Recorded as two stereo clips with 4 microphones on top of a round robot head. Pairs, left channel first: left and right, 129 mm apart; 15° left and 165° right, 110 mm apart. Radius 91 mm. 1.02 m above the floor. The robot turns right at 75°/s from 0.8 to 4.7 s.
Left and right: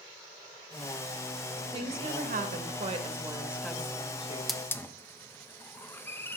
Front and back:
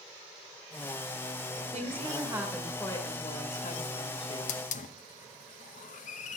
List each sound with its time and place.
1.7 s a woman speaking: 145° right, 1.7 m; by 4.6 s 70° left, 1.7 m
4.5 s a hiss: straight ahead, 0.7 m; by 6.4 s 15° left, 0.7 m